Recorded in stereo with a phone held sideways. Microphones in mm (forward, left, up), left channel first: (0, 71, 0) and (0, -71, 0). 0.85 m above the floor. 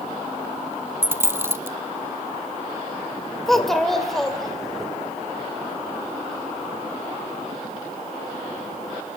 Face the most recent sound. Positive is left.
turn(degrees=5)  # may be behind; listen again after turning